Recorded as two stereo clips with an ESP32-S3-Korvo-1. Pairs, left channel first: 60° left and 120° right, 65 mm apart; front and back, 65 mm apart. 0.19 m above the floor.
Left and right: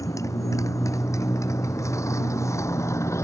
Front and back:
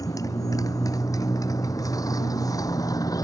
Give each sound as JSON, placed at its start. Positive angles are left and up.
{"t": 0.0, "sound": "a motorcycle", "azimuth_deg": 25}